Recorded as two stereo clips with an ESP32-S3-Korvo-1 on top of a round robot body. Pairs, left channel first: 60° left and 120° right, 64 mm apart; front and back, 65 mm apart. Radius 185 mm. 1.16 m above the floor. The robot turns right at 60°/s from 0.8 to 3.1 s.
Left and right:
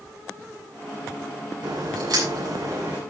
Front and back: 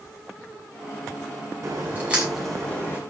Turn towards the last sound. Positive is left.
turn(degrees=-45)